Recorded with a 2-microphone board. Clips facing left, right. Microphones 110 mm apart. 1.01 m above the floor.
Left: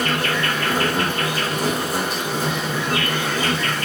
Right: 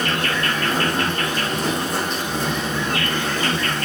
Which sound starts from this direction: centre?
An insect, at 0.0 s.